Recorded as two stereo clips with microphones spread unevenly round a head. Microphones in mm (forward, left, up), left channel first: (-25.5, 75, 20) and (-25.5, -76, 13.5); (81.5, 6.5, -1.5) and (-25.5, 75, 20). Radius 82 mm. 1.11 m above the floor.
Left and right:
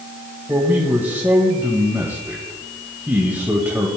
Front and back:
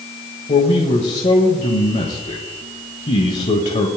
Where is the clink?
I don't hear a clink.